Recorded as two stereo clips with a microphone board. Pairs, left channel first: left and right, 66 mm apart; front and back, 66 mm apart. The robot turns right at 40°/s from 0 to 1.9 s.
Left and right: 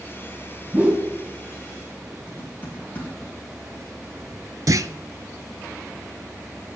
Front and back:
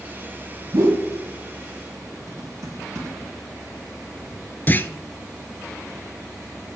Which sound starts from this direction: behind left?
Typing on a keyboard, at 2.3 s.